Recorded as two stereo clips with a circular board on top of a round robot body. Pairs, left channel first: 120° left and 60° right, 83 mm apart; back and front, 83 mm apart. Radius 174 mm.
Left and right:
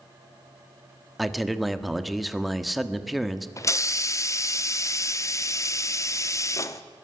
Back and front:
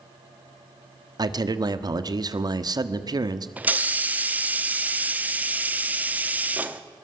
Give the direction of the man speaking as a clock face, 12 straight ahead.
11 o'clock.